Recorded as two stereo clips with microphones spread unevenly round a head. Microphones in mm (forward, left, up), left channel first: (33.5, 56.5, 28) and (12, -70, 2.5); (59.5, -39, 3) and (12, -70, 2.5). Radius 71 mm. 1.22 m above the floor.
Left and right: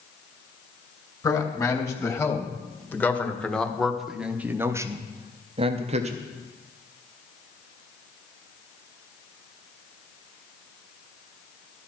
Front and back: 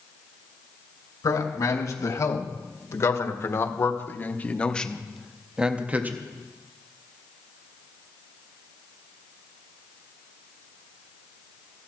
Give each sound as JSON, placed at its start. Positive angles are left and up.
{"t": 1.2, "sound": "a man speaking", "azimuth_deg": 15, "distance_m": 2.5}